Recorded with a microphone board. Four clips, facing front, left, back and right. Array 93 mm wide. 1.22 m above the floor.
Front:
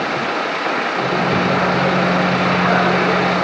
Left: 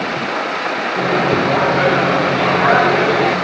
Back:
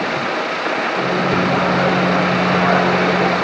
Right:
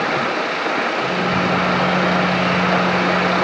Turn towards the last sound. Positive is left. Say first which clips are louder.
# left 4 dB, even
turn(degrees=100)